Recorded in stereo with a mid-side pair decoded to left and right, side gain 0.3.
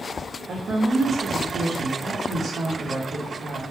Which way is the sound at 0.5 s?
65° right.